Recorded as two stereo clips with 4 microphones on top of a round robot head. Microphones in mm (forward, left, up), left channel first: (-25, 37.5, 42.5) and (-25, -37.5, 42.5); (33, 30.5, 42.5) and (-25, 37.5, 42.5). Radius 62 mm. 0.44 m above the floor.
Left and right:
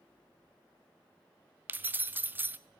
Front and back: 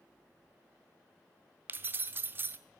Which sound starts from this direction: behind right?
Keys jangling, at 1.7 s.